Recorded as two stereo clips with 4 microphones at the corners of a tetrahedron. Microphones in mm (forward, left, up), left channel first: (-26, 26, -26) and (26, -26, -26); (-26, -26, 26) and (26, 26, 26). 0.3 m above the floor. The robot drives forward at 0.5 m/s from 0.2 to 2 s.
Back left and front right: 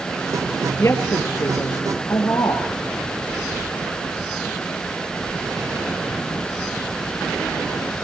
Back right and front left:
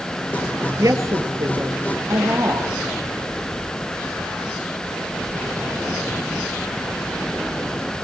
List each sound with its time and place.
0.8 s a woman speaking: 85° left, 5 m; by 2.7 s 90° left, 5 m